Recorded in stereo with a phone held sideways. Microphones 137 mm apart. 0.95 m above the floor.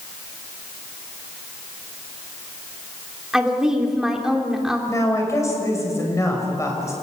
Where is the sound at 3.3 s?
5° right (ahead or behind), 3 m.